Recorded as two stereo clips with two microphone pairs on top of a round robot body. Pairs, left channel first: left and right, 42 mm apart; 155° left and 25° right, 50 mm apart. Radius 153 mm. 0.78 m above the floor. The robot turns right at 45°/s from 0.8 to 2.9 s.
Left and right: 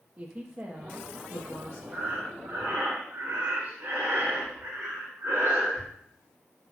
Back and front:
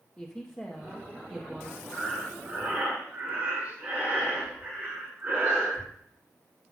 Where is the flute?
I don't hear a flute.